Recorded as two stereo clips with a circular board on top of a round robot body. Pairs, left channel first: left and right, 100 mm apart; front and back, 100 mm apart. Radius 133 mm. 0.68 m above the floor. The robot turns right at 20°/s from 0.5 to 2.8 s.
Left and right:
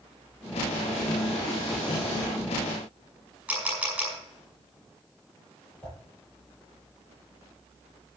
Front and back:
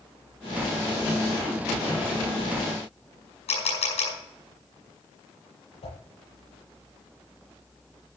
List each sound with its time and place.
3.5 s a camera shutter: 15° right, 7 m
5.8 s a whoosh: 10° left, 7 m